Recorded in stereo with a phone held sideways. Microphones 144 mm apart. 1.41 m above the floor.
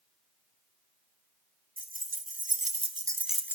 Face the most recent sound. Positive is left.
turn(degrees=15)  # may be behind; listen again after turning